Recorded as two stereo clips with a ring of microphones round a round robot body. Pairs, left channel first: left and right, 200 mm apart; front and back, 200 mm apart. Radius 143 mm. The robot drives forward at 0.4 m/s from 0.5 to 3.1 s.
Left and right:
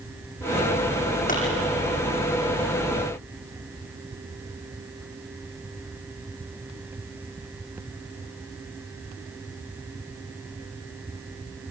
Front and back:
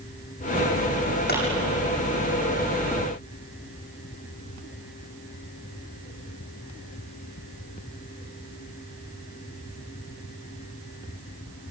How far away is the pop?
About 9 m.